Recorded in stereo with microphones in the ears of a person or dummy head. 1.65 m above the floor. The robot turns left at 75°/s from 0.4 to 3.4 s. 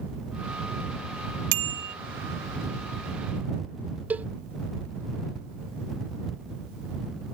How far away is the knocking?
No knocking in this recording.